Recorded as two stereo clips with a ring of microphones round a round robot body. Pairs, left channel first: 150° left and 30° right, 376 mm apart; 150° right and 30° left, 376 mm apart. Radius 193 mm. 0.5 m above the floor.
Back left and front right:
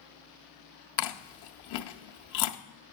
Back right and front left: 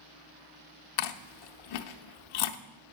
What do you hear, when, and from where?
1.0 s chewing: 170° right, 0.7 m